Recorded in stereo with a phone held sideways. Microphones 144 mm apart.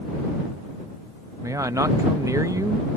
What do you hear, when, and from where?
1.4 s a man speaking: 20° right (ahead or behind)